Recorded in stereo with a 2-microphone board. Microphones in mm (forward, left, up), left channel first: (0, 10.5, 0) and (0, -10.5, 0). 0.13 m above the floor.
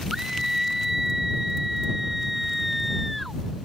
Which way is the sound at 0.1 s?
20° right (ahead or behind).